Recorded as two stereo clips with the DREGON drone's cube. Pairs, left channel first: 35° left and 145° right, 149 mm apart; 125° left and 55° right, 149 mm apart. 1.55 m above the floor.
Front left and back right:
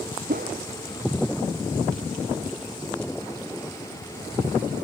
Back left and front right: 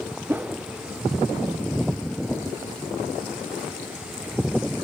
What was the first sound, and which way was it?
A whoosh, 135° right.